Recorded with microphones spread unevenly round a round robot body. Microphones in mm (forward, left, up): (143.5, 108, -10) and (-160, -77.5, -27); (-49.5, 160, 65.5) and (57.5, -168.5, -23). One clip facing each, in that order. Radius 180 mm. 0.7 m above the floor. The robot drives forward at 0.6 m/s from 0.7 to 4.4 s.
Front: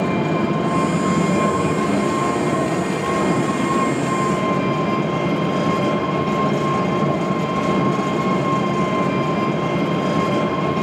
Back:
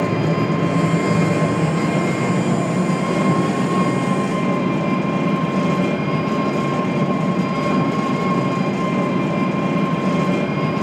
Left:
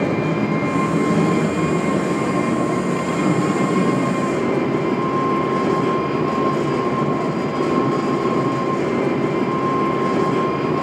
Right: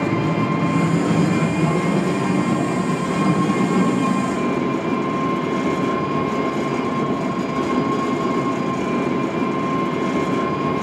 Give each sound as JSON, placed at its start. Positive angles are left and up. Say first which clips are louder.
{"t": 0.0, "sound": "an engine running", "louder": "even, left 1 dB", "azimuth_deg": -150, "distance_m": 9.0}